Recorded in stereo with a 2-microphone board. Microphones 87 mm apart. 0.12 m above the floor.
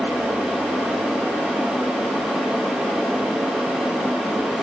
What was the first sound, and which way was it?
Only background noise.